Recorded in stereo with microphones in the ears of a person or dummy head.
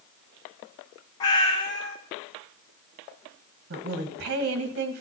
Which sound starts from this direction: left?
A cat meowing, at 1.2 s.